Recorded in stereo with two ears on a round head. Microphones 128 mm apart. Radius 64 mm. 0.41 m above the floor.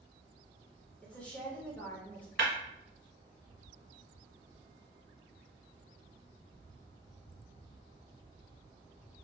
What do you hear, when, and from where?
1.0 s a woman speaking: 10° left (ahead or behind), 0.9 m
2.4 s breaking glass: 80° right, 1.5 m